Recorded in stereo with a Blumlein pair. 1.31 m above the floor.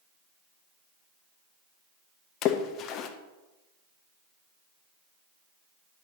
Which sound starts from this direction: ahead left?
A splash, at 2.4 s.